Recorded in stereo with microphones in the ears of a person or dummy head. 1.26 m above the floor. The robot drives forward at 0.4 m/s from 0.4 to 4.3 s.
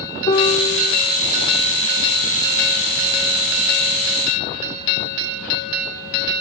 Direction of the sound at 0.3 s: 35° left (ahead or behind).